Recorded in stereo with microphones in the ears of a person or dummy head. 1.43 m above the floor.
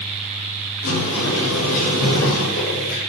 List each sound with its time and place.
0.8 s a sliding door: 85° left, 6 m